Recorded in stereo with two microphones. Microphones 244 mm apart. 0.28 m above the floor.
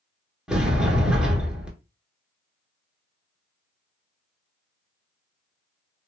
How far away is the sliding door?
About 0.8 m.